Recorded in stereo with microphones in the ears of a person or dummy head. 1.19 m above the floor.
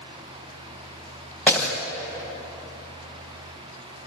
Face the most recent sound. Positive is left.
turn(degrees=5)  # may be behind; listen again after turning